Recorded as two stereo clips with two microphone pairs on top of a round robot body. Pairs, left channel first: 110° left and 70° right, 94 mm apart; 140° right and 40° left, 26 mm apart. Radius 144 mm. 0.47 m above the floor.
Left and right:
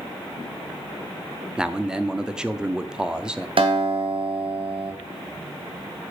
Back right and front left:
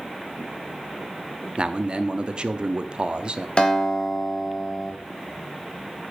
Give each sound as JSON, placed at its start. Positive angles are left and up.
{"t": 1.6, "sound": "a man speaking", "azimuth_deg": 5, "distance_m": 0.9}
{"t": 3.6, "sound": "a guitar", "azimuth_deg": -90, "distance_m": 2.5}